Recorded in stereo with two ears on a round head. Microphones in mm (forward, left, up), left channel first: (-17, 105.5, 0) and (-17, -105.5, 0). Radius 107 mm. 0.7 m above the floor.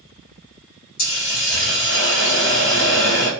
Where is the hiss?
55° left (ahead or behind), 1.4 m.